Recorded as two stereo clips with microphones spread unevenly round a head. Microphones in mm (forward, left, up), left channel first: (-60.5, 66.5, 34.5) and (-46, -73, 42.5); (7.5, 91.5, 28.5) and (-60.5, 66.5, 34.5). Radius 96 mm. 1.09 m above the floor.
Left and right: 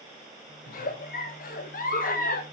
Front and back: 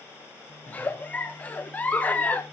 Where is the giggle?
85° left, 0.9 m.